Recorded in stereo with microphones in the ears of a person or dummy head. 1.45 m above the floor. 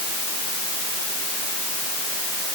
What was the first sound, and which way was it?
Only background noise.